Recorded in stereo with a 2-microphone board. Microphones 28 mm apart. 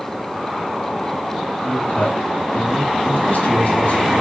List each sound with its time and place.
1.6 s a man speaking: 75° left (ahead or behind), 4 m